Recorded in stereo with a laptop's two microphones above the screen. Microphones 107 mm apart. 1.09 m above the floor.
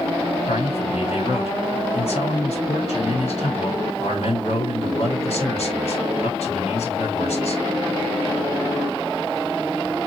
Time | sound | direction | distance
0.5 | a man speaking | 65° left (ahead or behind) | 2.5 m